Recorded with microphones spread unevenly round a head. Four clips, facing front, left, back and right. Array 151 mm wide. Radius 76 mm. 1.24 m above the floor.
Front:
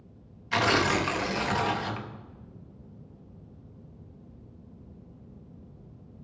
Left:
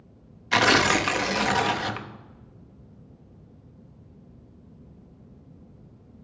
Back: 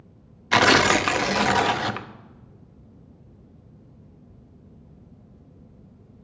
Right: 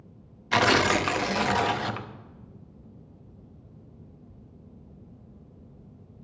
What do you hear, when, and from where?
0.5 s tearing paper: 175° right, 0.8 m